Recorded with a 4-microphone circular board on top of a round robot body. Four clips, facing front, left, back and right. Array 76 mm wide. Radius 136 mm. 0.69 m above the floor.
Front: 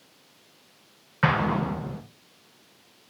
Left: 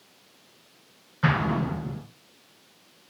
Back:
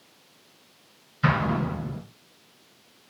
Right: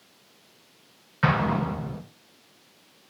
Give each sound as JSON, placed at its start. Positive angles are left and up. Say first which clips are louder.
{"t": 1.2, "sound": "an explosion", "louder": "right 1 dB, front 1 dB", "azimuth_deg": -20, "distance_m": 1.7}